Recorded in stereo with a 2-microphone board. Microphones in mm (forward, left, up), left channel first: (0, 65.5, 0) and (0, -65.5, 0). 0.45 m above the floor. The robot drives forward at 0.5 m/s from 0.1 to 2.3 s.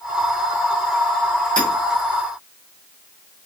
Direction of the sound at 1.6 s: 80° right.